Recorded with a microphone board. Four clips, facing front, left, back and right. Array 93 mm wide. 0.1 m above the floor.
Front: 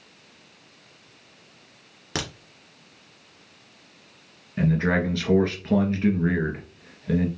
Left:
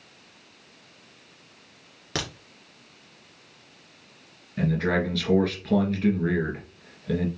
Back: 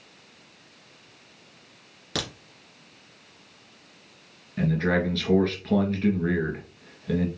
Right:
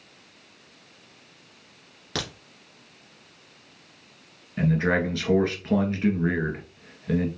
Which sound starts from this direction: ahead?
A crack, at 2.1 s.